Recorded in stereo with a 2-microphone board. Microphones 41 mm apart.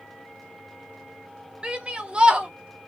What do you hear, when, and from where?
1.6 s a shout: 25° right (ahead or behind), 0.7 m